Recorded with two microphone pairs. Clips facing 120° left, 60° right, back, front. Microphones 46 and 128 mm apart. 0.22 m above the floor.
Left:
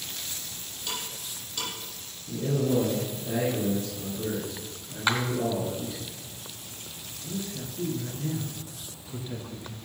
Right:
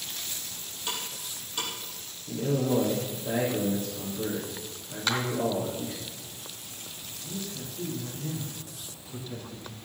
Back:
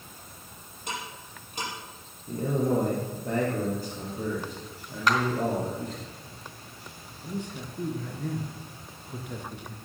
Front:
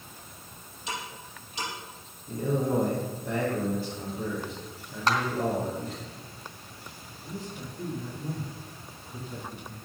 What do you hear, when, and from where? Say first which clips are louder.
0.9 s ticking: even, even; 135° right, 7.5 m
2.3 s a man speaking: even, back 1 dB; 130° right, 5.5 m
5.1 s a clap: left 3 dB, back 1 dB; 55° left, 2 m
7.2 s a man speaking: left 3 dB, back 3 dB; 175° right, 3 m